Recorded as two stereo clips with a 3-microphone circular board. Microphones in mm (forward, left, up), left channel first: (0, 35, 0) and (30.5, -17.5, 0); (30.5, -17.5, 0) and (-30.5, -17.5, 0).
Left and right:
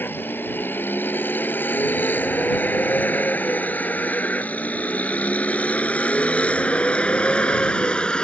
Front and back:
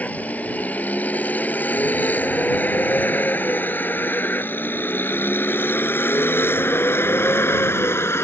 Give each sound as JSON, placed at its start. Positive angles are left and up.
{"t": 0.0, "sound": "a vehicle", "azimuth_deg": 65}